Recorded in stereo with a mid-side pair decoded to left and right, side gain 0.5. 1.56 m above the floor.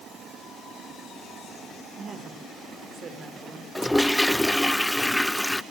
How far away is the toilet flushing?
About 0.5 m.